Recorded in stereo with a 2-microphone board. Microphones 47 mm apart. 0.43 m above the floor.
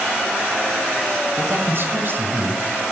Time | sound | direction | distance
1.4 | a man speaking | 55° right (ahead or behind) | 2 m